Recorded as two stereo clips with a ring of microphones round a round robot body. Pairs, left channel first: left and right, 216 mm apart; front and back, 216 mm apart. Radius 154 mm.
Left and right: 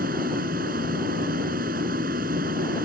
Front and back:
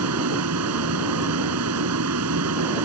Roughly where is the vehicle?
Behind right.